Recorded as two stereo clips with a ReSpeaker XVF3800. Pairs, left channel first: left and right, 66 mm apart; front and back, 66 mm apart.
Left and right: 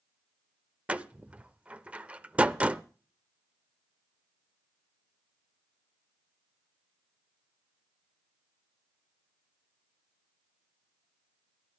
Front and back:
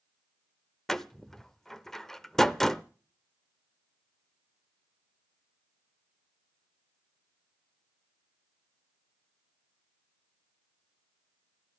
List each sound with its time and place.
0.9 s a door slam: 75° right, 0.5 m